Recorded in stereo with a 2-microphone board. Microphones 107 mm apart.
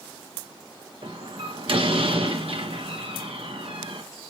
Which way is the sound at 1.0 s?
65° right (ahead or behind).